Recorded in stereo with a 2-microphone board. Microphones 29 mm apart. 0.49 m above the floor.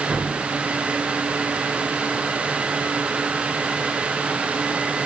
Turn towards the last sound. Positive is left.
turn(degrees=-50)  # may be behind; listen again after turning